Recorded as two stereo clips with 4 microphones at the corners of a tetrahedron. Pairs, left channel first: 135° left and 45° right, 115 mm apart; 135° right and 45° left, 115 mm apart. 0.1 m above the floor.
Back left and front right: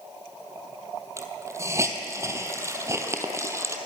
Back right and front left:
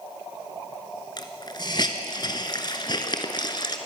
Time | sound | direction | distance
1.2 | a hiss | 100° right | 1.5 m